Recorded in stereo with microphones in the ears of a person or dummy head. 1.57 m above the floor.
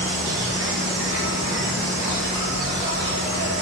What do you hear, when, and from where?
0.0 s an insect: 60° right (ahead or behind), 3 m